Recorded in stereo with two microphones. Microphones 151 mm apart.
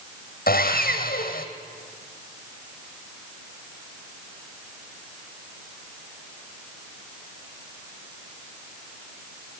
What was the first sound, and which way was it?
Sawing, 80° left.